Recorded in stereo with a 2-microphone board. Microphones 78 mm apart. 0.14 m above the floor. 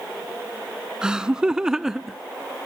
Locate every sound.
1.0 s laughter: 10° right (ahead or behind); by 2.2 s 5° right (ahead or behind)